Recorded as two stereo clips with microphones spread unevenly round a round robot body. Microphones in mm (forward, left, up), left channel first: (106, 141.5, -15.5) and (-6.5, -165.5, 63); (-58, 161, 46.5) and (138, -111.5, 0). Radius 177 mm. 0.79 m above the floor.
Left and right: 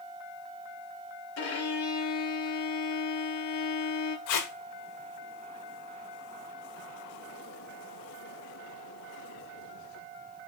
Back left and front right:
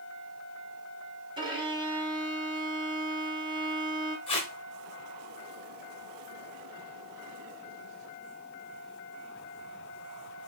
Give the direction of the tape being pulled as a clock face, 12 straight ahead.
10 o'clock.